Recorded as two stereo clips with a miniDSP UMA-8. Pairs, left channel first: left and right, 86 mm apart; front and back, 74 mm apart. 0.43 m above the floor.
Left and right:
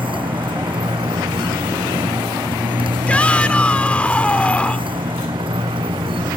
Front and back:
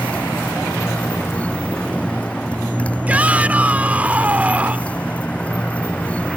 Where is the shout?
145° left.